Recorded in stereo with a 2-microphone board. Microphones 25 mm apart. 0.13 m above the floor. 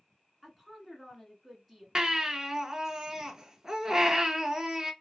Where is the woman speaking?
Centre (ahead or behind), 1.3 m.